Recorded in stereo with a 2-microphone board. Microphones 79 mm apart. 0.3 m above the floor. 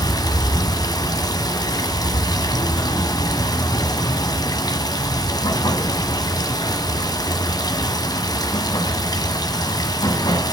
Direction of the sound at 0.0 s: 55° left (ahead or behind).